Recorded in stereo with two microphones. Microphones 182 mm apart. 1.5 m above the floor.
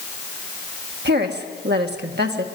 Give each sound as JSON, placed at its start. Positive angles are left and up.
{"t": 1.1, "sound": "a woman speaking", "side_deg": -65, "distance_m": 1.6}